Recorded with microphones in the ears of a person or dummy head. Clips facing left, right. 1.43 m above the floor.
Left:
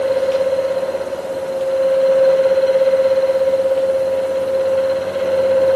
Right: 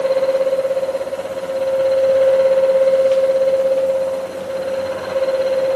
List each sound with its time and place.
Only background noise.